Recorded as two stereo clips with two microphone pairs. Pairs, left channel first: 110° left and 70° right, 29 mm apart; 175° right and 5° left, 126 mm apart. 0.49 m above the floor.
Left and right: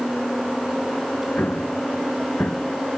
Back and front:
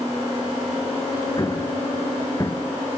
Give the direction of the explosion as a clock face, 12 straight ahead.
8 o'clock.